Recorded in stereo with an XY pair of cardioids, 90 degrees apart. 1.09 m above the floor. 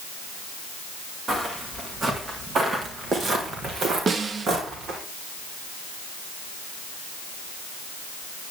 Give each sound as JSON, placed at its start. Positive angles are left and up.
{"t": 1.3, "sound": "footsteps", "azimuth_deg": -45, "distance_m": 4.0}
{"t": 4.1, "sound": "a snare drum", "azimuth_deg": -45, "distance_m": 0.9}